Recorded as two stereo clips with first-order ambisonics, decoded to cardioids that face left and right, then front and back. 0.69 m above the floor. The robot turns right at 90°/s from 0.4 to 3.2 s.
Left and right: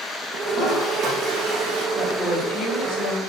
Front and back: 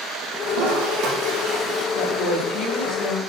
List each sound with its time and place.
0.5 s a toilet flushing: 160° left, 8 m; by 1.9 s 75° right, 8 m
1.9 s a woman speaking: 25° right, 4 m; by 3.2 s 90° left, 4 m